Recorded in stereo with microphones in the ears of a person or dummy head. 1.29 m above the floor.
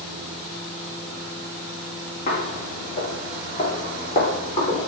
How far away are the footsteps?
About 5 m.